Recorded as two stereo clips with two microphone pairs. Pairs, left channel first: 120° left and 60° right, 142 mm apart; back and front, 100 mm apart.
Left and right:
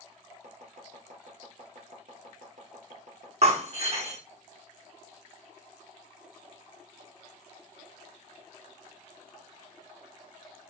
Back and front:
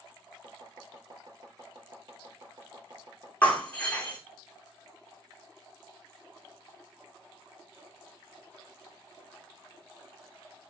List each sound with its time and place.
0.4 s chopping: 45° right, 3.5 m
3.4 s breaking glass: 105° right, 3.5 m